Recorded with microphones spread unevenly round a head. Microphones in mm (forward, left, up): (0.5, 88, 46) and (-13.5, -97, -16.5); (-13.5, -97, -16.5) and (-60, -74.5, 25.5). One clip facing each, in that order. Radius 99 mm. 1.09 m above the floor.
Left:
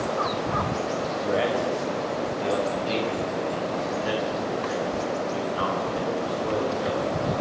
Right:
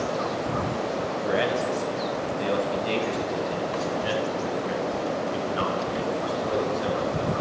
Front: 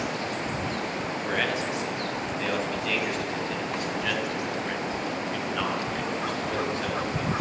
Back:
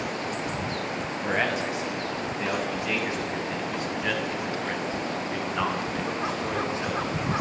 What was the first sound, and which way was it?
A man speaking, 160° right.